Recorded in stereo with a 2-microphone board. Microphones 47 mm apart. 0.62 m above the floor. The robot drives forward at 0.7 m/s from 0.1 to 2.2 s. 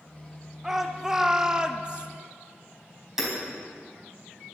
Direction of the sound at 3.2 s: 10° right (ahead or behind).